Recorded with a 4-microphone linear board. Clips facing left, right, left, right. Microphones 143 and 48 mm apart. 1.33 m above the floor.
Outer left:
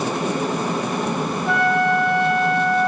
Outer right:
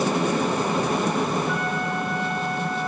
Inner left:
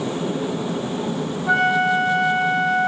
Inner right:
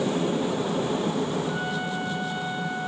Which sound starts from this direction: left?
A flute, at 1.5 s.